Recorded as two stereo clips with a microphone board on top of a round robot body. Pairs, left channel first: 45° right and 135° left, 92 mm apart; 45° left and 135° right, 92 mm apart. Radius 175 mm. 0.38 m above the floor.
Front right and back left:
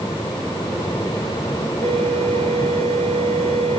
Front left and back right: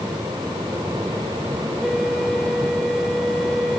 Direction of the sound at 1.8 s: 135° left.